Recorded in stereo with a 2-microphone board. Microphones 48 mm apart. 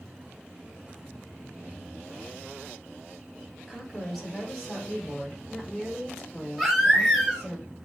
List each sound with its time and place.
3.7 s a woman speaking: 5° right (ahead or behind), 2.5 m; by 7.6 s 5° left (ahead or behind), 5 m
6.6 s a baby crying: 5° right (ahead or behind), 2.5 m